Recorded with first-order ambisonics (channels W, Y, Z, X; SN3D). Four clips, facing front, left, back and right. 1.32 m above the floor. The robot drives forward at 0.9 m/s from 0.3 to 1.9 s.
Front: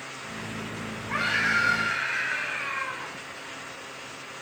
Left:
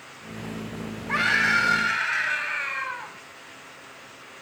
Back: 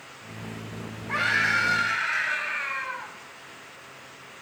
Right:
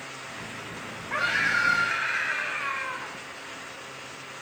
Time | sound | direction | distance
1.1 | a scream | 105° left | 3 m